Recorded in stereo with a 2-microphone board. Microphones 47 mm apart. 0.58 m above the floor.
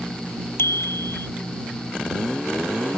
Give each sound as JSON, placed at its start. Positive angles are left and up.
{"t": 0.6, "sound": "a bicycle bell", "side_deg": 65}